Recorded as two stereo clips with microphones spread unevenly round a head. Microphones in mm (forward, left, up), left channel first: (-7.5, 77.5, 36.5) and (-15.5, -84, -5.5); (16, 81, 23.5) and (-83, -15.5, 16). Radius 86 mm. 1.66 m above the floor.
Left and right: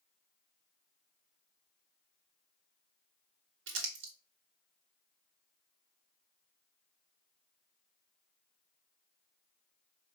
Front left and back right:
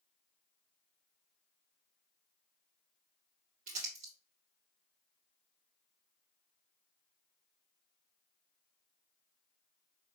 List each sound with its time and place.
3.7 s crumpling: 85° right, 1.7 m